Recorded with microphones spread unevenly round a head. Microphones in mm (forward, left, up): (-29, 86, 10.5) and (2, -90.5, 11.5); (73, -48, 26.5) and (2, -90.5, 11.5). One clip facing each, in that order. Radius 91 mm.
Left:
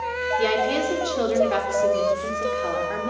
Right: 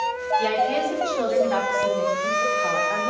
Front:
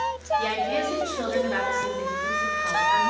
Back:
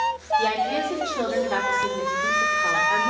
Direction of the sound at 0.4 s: 140° left.